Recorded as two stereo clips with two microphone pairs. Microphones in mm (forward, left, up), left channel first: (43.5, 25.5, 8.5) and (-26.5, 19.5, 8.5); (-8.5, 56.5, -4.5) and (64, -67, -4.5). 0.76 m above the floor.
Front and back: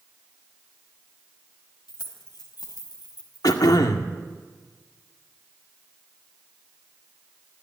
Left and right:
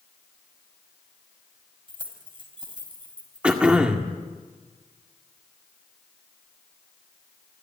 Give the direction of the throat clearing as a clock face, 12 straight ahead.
11 o'clock.